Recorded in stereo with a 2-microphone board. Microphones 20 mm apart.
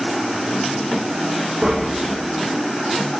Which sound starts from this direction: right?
Tapping, at 1.6 s.